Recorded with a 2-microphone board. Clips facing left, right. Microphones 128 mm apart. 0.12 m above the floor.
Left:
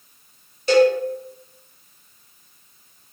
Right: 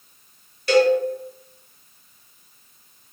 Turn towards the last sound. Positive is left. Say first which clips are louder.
# left 1 dB
turn(degrees=25)  # may be behind; listen again after turning